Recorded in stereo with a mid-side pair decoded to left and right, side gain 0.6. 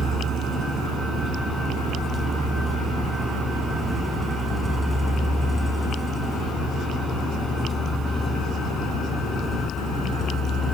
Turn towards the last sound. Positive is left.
turn(degrees=35)